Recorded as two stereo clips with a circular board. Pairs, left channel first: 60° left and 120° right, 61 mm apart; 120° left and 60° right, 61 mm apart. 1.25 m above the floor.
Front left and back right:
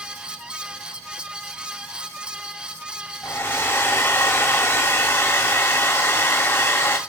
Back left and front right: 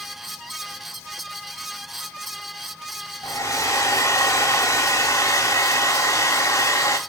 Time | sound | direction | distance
3.2 | a hair dryer | 100° left | 1.5 m